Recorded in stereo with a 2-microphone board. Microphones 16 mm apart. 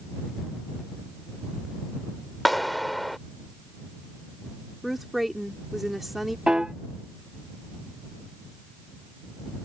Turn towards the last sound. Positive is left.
turn(degrees=-70)  # may be behind; listen again after turning